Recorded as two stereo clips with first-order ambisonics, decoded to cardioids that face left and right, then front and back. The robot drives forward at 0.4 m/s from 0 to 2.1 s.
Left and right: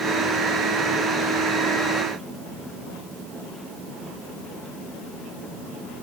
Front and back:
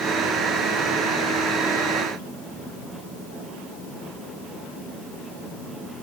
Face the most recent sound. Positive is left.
No sound to turn to.